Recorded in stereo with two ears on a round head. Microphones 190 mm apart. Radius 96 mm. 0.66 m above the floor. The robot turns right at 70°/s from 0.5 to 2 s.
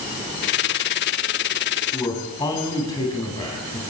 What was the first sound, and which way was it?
A man speaking, 15° left (ahead or behind).